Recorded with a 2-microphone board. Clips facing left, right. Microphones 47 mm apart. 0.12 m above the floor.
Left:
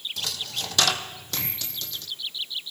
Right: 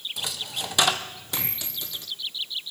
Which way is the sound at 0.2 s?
15° right (ahead or behind).